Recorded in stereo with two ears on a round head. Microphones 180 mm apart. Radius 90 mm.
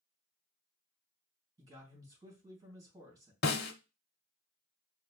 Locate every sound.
1.6 s a man speaking: 20° right (ahead or behind), 2.5 m
3.4 s a snare drum: 50° left (ahead or behind), 0.8 m